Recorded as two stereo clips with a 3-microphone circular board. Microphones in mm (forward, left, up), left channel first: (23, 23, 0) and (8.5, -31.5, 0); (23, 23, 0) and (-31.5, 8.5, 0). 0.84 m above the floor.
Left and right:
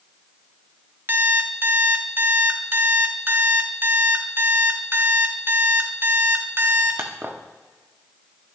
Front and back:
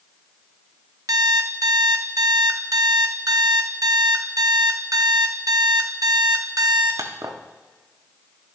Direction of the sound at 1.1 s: 160° right.